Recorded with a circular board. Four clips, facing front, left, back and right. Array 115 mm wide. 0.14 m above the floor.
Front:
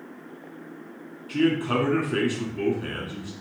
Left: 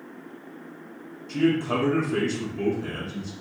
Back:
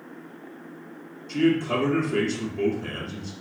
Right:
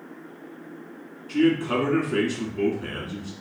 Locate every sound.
1.3 s a man speaking: 25° right, 1.2 m